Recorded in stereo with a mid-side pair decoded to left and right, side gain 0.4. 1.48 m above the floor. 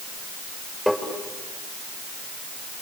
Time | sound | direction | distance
0.9 | tapping | straight ahead | 5.5 m